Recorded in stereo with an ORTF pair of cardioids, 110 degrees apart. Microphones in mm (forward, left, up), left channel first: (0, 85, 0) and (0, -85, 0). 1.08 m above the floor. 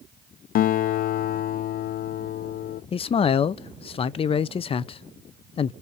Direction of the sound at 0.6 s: 60° left.